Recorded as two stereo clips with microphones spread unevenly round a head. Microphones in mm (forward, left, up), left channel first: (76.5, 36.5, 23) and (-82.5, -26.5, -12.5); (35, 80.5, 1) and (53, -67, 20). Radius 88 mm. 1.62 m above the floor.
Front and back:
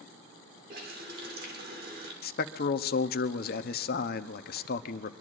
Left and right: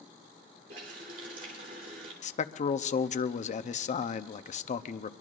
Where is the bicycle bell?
No bicycle bell in this recording.